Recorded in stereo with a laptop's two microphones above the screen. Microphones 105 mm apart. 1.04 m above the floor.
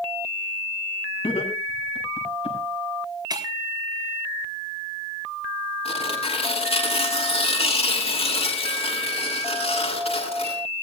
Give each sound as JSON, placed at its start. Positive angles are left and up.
{"t": 1.2, "sound": "laughter", "side_deg": 70, "distance_m": 7.0}
{"t": 3.3, "sound": "breaking glass", "side_deg": -40, "distance_m": 3.5}
{"t": 5.8, "sound": "tearing paper", "side_deg": 70, "distance_m": 8.0}